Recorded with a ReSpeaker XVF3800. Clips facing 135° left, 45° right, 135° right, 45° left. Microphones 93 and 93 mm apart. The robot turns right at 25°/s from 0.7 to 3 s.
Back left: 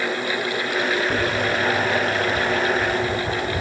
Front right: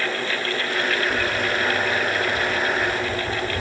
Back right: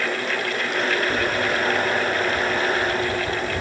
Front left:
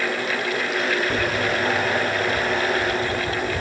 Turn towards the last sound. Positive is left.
turn(degrees=125)